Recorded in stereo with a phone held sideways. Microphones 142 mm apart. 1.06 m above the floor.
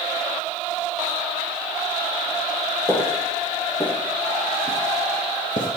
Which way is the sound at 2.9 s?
15° right (ahead or behind).